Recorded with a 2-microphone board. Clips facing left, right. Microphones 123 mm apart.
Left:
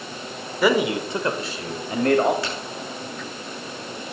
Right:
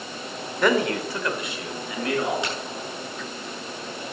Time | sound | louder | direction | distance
0.6 | a man speaking | left 2 dB | 5° left (ahead or behind) | 1.9 m
2.4 | a crack | even | 20° right (ahead or behind) | 7.5 m